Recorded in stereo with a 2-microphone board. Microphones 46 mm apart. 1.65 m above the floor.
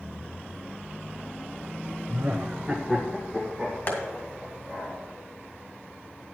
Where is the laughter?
45° right (ahead or behind), 0.7 m; by 4.9 s 15° left (ahead or behind), 3.5 m.